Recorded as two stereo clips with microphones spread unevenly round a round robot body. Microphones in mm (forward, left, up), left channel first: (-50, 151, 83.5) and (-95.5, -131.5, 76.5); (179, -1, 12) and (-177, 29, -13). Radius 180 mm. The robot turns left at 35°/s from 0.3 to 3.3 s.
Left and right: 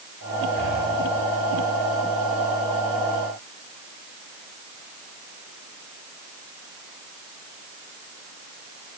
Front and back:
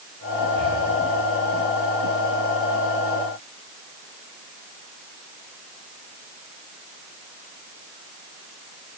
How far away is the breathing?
About 7.5 m.